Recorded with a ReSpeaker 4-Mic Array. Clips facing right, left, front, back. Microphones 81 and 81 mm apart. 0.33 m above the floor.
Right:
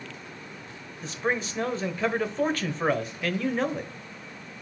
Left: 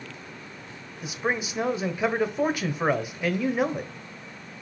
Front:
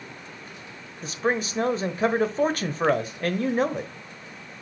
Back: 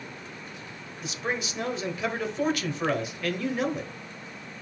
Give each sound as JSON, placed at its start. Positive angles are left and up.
{"t": 1.0, "sound": "a man speaking", "azimuth_deg": 15, "distance_m": 1.0}